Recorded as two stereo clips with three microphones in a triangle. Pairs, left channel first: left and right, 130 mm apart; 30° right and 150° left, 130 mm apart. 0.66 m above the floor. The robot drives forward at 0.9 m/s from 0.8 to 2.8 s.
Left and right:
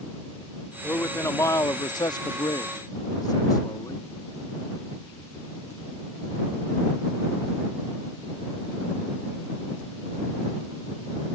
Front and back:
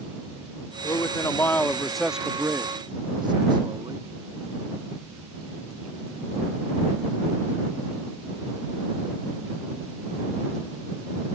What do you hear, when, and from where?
0.8 s a man speaking: 20° left; by 4.1 s 125° left